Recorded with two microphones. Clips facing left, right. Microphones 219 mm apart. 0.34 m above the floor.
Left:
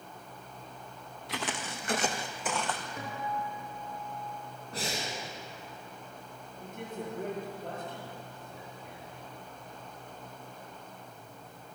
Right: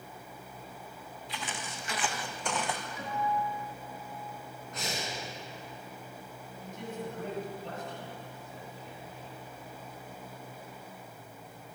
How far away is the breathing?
About 2.5 m.